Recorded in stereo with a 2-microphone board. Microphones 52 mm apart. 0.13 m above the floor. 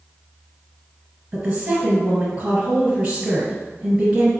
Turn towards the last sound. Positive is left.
turn(degrees=-40)  # may be behind; listen again after turning